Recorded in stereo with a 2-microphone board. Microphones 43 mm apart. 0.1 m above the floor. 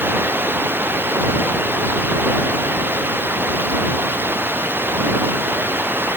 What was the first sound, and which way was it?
Running water, 50° right (ahead or behind).